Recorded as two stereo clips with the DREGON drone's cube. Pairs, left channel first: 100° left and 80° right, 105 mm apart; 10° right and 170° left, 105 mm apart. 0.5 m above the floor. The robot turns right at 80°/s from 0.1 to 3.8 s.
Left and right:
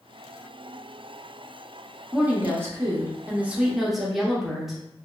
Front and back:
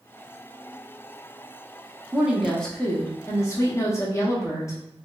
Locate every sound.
2.1 s a woman speaking: 130° right, 0.7 m; by 4.8 s 5° left, 0.7 m